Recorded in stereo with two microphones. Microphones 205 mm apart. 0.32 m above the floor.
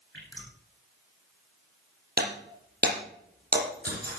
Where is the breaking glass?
50° right (ahead or behind), 6.5 m.